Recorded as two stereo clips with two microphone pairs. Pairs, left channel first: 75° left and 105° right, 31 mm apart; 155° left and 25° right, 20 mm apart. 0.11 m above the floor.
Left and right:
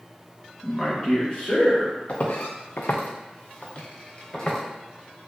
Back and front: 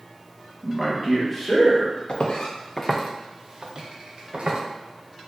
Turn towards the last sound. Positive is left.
turn(degrees=10)